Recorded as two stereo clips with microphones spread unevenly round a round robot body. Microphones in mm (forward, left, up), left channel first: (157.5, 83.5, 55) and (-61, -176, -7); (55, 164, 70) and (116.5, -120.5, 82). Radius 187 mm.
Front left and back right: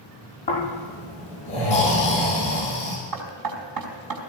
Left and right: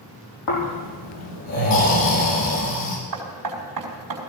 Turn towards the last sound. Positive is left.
turn(degrees=-105)